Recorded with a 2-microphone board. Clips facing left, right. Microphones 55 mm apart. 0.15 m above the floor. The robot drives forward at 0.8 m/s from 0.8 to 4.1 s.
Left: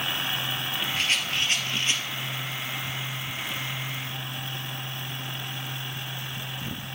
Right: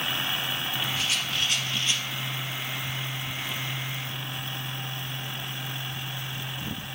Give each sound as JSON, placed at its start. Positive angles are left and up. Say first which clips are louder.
{"t": 1.0, "sound": "a rattle", "louder": "left 2 dB", "side_deg": 50, "distance_m": 1.5}